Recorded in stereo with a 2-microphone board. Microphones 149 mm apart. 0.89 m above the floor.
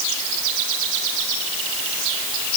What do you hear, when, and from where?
Only background noise.